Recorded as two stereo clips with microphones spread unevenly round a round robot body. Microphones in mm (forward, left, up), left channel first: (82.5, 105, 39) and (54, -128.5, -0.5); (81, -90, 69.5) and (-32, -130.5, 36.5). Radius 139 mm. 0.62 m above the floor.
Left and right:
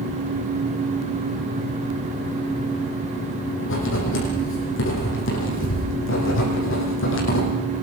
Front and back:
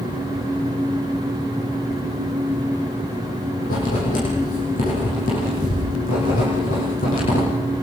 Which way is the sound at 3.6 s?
50° left.